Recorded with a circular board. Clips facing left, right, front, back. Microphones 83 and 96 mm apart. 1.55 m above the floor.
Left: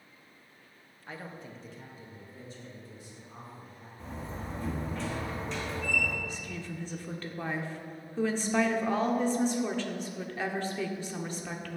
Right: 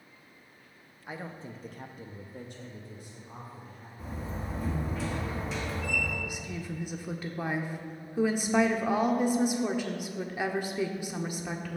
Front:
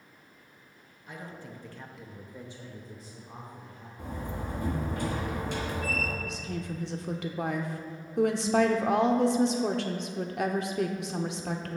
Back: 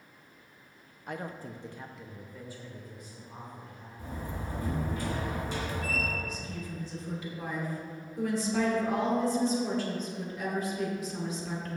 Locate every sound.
1.1 s a woman speaking: 165° right, 0.8 m; by 3.9 s 50° right, 2 m
4.0 s a door slam: 5° right, 1.5 m
6.2 s a woman speaking: 15° right, 0.8 m